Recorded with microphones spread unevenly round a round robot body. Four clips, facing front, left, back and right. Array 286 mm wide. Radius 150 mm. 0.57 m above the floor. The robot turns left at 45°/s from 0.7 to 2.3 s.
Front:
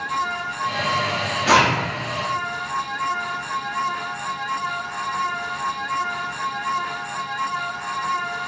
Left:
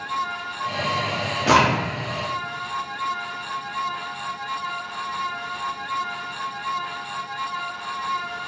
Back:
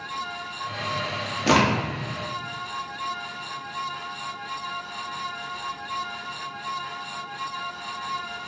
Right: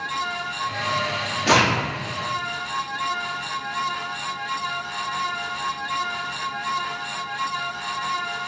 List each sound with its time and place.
1.5 s a crack: 140° left, 1.1 m; by 1.8 s 125° left, 1.1 m